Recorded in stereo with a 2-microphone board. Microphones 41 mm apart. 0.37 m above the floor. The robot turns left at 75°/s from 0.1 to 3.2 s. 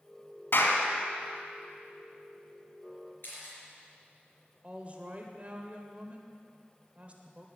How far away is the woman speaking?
About 1.3 m.